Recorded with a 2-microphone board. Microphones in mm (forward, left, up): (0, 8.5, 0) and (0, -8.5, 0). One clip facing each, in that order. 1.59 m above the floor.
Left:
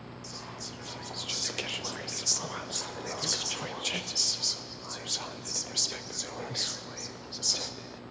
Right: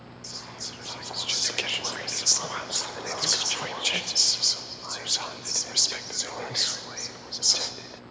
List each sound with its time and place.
0.2 s whispering: 20° right (ahead or behind), 0.6 m